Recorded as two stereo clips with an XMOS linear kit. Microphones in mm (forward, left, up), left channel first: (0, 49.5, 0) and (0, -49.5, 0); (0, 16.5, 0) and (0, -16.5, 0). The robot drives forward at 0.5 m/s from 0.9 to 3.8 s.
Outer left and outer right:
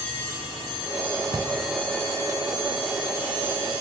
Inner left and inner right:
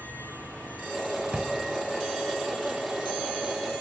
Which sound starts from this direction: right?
A drawer, at 1.3 s.